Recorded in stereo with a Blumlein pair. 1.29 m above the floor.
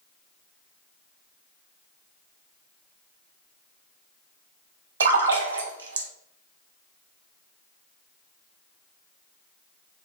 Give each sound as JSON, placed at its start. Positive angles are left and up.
{"t": 5.0, "sound": "a splash", "azimuth_deg": -70, "distance_m": 0.9}